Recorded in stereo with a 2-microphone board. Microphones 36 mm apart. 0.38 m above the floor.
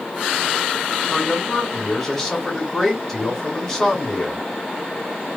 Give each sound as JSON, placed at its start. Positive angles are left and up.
{"t": 1.1, "sound": "a man speaking", "side_deg": 10, "distance_m": 1.5}